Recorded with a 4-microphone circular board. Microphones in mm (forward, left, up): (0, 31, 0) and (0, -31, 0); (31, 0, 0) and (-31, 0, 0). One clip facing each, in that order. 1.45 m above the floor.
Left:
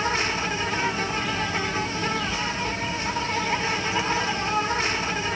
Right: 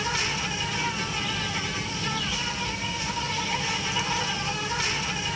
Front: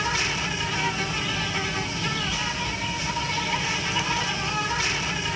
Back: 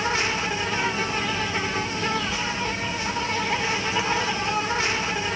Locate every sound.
0.0 s an insect: 135° left, 1.0 m